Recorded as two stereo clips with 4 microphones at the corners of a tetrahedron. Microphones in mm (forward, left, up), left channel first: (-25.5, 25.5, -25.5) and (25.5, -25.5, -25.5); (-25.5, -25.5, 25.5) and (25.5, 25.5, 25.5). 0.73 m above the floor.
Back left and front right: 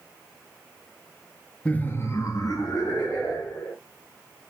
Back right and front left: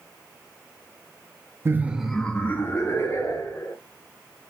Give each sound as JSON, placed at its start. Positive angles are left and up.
{"t": 1.6, "sound": "laughter", "azimuth_deg": 70, "distance_m": 0.5}